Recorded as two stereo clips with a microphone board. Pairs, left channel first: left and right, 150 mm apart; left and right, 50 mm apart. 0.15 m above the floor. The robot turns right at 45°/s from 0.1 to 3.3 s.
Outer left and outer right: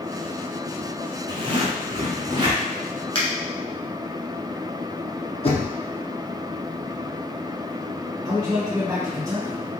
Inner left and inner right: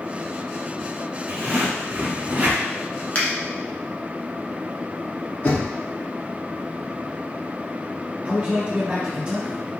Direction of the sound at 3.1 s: 40° left (ahead or behind).